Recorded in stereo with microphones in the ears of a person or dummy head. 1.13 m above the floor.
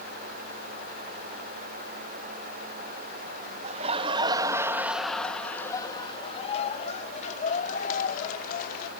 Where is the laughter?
35° right (ahead or behind); by 8.9 s 60° left (ahead or behind).